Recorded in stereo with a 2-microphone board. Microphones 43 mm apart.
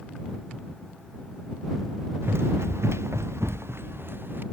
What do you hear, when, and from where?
2.2 s running footsteps: 60° right (ahead or behind); by 4.4 s 50° right (ahead or behind)